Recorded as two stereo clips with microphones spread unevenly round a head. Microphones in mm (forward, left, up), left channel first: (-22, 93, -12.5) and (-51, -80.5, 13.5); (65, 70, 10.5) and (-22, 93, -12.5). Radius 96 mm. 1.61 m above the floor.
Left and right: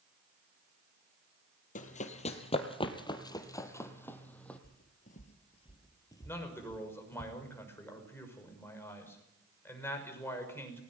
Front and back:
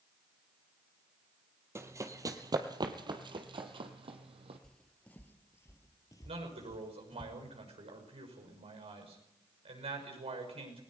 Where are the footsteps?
50° left, 2 m; by 7.2 s 10° right, 3.5 m.